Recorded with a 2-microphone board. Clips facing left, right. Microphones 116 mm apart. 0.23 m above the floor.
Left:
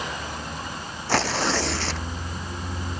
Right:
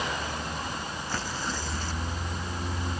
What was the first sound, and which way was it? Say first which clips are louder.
Tearing paper: left 12 dB; 80° left.